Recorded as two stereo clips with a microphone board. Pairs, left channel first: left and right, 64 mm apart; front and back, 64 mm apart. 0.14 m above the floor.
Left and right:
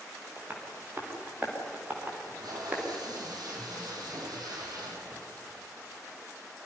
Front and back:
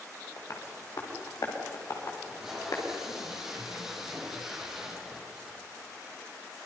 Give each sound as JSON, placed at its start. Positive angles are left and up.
{"t": 0.4, "sound": "tapping", "azimuth_deg": -30, "distance_m": 8.0}
{"t": 2.2, "sound": "tape being pulled", "azimuth_deg": -95, "distance_m": 6.0}